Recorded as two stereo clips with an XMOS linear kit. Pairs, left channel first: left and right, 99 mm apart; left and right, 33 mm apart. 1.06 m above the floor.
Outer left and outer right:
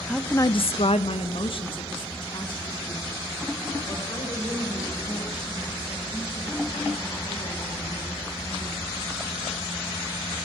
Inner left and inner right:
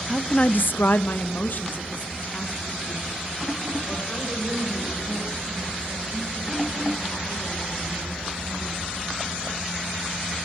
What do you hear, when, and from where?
0.1 s a woman speaking: centre (ahead or behind), 0.6 m; by 9.0 s 40° left (ahead or behind), 9.5 m